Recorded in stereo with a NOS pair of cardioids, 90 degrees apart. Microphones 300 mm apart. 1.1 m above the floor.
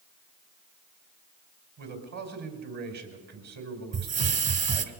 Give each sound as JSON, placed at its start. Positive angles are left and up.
{"t": 1.8, "sound": "a man speaking", "azimuth_deg": -65, "distance_m": 5.0}
{"t": 3.9, "sound": "a hiss", "azimuth_deg": -55, "distance_m": 2.0}